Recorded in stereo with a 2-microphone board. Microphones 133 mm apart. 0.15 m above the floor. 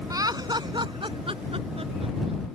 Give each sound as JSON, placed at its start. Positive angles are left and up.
{"t": 0.1, "sound": "laughter", "side_deg": -25}